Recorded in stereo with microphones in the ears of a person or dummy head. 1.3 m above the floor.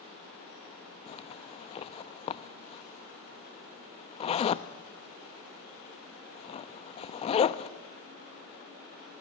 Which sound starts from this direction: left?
A zipper, at 1.1 s.